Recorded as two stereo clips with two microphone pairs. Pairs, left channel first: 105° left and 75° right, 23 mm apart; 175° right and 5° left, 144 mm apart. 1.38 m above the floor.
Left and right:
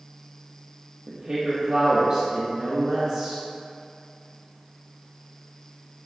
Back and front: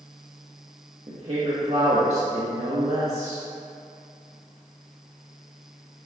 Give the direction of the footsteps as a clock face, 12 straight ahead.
No footsteps in this recording.